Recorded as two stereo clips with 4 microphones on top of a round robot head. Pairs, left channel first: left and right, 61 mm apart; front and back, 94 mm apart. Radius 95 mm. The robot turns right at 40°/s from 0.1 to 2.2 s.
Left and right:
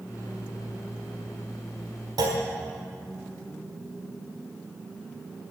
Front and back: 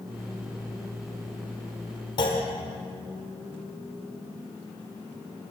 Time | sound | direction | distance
2.2 | a clunk | 55° right | 1.4 m